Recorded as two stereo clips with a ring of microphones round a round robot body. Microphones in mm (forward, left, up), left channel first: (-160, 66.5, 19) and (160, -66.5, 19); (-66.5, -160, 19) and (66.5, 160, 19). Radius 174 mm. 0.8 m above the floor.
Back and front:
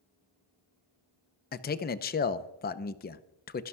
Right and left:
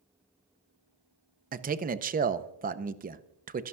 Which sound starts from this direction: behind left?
A man speaking, at 1.5 s.